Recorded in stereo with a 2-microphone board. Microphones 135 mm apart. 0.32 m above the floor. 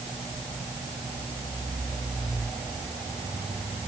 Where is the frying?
No frying in this recording.